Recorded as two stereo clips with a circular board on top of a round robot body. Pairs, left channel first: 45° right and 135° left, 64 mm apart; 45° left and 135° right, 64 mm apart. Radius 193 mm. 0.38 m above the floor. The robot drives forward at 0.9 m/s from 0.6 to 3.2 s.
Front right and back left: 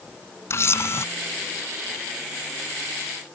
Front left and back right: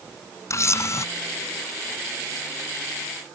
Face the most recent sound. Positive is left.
turn(degrees=25)